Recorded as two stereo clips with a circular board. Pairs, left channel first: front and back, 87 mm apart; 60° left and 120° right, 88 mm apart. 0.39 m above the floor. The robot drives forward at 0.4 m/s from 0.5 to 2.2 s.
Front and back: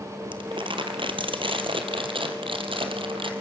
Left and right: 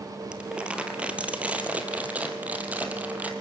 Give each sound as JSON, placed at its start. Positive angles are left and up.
{"t": 0.3, "sound": "crumpling", "azimuth_deg": 160, "distance_m": 1.7}